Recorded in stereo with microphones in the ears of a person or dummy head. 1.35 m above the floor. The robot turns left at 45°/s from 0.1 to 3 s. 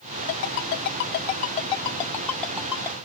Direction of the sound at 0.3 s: 60° left (ahead or behind).